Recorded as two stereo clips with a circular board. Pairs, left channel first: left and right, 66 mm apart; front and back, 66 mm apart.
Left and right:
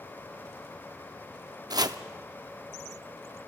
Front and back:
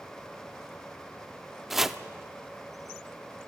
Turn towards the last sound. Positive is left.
turn(degrees=-95)